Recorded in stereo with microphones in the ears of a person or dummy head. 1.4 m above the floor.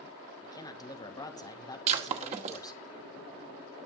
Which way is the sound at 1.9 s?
40° right (ahead or behind).